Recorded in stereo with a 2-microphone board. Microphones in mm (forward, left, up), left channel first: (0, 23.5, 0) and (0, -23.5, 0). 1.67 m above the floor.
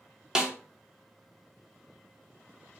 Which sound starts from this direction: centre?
A snare drum, at 0.3 s.